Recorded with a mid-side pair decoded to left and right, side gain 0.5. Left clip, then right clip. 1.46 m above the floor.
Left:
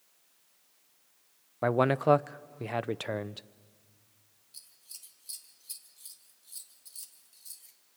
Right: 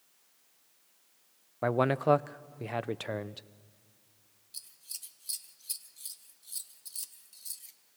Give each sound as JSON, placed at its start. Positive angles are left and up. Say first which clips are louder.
{"t": 1.6, "sound": "a man speaking", "louder": "left 2 dB", "azimuth_deg": 15, "distance_m": 0.5}
{"t": 4.5, "sound": "scissors", "louder": "right 5 dB", "azimuth_deg": -35, "distance_m": 1.2}